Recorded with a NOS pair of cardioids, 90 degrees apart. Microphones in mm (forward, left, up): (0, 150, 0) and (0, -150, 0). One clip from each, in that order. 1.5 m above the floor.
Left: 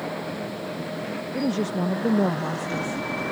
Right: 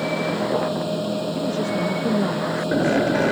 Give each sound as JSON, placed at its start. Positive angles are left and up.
{"t": 0.0, "sound": "a machine running", "azimuth_deg": -55}
{"t": 1.3, "sound": "a woman speaking", "azimuth_deg": 20}